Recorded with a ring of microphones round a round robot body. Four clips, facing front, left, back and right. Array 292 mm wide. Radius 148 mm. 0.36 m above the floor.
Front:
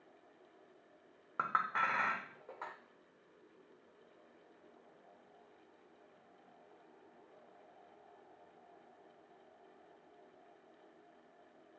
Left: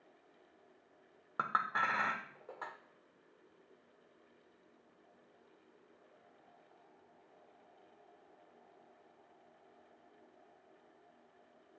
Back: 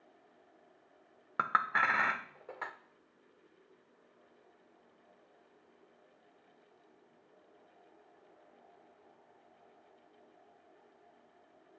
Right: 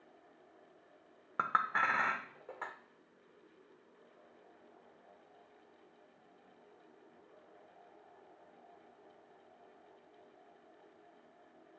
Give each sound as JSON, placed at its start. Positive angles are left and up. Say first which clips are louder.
{"t": 1.4, "sound": "a clink", "louder": "right 2 dB, back 4 dB", "azimuth_deg": -170, "distance_m": 0.6}